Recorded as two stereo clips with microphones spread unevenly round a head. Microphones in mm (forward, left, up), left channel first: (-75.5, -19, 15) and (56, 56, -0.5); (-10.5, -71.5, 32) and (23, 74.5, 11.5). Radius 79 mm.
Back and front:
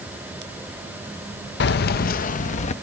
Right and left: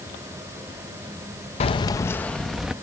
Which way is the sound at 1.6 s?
155° right.